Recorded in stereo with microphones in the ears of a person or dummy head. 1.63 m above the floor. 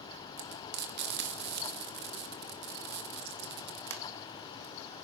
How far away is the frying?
About 2.5 m.